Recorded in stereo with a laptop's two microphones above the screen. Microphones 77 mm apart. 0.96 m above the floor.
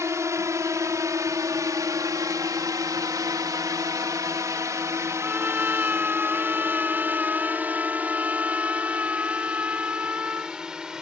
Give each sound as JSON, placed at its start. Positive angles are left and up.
{"t": 0.0, "sound": "a drone", "side_deg": -40}
{"t": 5.2, "sound": "a trumpet", "side_deg": -20}